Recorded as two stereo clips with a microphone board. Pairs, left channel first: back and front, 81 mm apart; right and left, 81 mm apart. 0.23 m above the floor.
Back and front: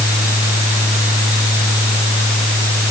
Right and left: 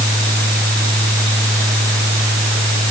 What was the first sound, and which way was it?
Only background noise.